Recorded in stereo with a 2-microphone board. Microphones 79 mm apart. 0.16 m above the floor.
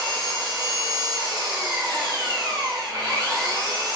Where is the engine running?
65° right (ahead or behind), 1.6 m.